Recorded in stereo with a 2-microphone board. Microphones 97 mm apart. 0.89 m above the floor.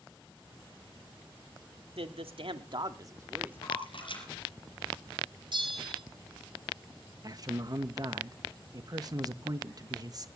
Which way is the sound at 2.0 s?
80° right.